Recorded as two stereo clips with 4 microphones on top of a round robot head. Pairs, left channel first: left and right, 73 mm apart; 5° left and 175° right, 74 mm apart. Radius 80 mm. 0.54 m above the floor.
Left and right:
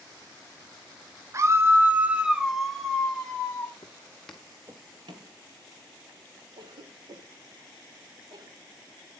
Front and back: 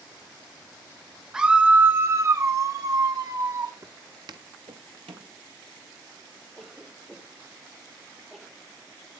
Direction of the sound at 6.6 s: 95° right.